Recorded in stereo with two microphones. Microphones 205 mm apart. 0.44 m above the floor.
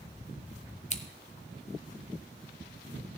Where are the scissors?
35° left (ahead or behind), 1.0 m.